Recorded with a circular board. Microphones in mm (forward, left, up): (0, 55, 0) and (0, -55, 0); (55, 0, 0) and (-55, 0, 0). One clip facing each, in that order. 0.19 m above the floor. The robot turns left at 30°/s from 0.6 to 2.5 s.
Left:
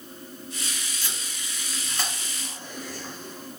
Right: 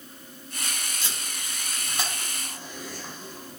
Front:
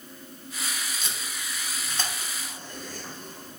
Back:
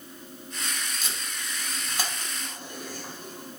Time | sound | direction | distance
1.0 | tape being pulled | 90° right | 1.4 m